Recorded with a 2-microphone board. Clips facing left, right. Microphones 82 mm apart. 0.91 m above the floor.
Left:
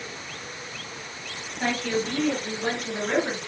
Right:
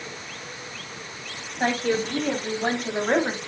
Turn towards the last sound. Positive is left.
turn(degrees=-55)  # may be behind; listen again after turning